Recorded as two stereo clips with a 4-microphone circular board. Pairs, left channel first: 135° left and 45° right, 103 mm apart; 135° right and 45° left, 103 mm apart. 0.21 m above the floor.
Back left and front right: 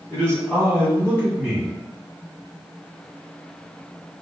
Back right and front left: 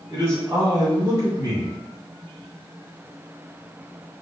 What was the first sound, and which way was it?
A man speaking, 65° left.